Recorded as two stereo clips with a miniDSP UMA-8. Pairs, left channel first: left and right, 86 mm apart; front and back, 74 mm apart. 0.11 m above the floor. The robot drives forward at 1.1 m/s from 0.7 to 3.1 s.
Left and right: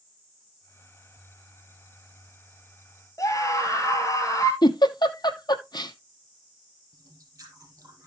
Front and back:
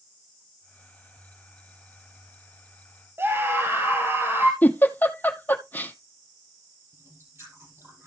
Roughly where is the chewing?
Behind right.